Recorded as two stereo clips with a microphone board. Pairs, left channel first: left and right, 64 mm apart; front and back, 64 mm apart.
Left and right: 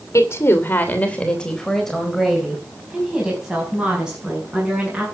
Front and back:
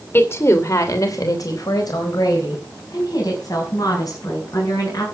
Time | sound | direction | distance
0.1 | a woman speaking | 55° left | 2.5 m